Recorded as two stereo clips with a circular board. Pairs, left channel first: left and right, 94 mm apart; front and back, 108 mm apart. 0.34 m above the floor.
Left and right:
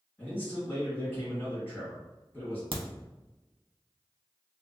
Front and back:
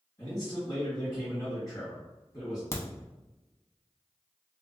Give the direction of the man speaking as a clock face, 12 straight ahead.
11 o'clock.